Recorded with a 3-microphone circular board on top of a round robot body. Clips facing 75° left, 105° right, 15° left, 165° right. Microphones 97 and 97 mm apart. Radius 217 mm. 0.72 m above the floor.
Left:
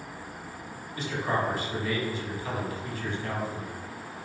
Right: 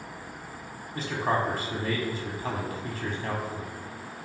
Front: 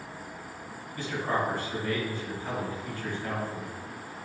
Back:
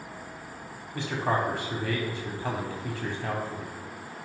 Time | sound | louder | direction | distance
0.9 | a man speaking | right 2 dB, back 2 dB | 155° right | 2.5 m